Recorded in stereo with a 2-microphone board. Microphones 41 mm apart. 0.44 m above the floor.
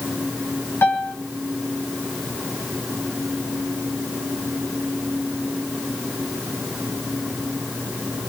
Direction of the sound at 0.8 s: 70° left (ahead or behind).